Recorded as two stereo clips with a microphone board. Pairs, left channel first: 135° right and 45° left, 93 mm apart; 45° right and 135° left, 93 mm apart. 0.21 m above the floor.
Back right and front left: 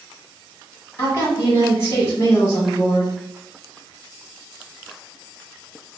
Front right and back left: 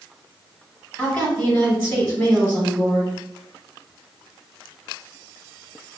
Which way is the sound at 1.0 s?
100° right.